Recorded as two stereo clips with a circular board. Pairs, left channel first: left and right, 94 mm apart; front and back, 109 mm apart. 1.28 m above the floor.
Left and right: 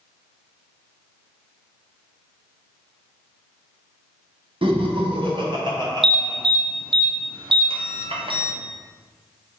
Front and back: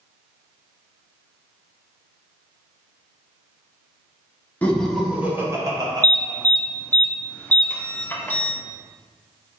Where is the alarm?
75° right, 0.6 m.